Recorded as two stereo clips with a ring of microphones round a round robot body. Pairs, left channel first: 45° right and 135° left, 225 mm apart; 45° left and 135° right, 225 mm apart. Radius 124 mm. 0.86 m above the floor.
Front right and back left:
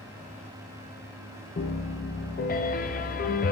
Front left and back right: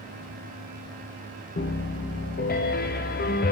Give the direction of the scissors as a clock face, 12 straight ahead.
I don't hear scissors.